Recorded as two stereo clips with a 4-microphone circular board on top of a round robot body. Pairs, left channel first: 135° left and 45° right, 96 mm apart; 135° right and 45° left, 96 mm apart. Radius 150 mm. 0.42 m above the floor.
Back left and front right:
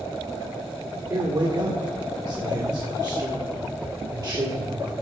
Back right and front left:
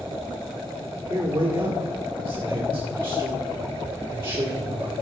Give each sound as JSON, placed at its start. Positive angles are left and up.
{"t": 1.1, "sound": "a man speaking", "azimuth_deg": -15, "distance_m": 2.0}